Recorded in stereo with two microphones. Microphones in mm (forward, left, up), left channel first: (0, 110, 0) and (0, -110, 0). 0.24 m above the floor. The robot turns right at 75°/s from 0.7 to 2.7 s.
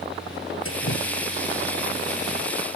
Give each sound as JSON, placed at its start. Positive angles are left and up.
{"t": 0.7, "sound": "dripping", "azimuth_deg": 90}